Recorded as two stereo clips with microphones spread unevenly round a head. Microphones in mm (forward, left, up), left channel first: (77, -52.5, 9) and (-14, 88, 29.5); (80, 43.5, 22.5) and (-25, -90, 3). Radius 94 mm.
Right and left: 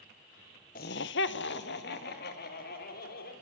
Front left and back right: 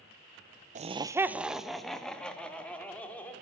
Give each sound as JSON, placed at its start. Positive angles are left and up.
{"t": 0.8, "sound": "laughter", "azimuth_deg": -95, "distance_m": 0.6}